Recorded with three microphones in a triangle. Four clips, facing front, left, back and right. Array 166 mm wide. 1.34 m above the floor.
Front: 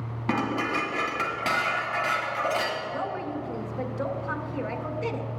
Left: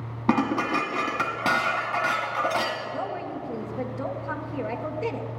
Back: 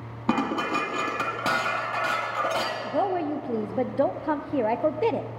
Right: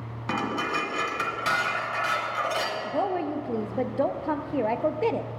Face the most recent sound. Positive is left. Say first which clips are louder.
# right 4 dB, back 6 dB
turn(degrees=-150)